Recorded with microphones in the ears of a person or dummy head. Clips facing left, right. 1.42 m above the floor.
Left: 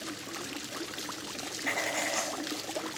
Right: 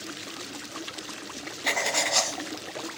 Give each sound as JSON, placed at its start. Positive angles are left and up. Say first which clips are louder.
{"t": 1.6, "sound": "writing", "louder": "right 4 dB", "side_deg": -55, "distance_m": 0.5}